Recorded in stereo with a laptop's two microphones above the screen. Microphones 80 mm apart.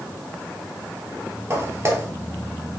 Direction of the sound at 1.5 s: 35° right (ahead or behind).